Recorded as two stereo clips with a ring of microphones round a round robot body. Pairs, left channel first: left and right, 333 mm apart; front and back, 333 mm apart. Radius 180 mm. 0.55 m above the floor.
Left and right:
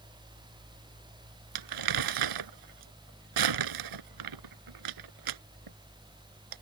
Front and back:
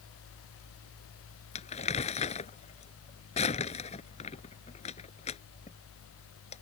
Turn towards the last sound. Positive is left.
turn(degrees=-75)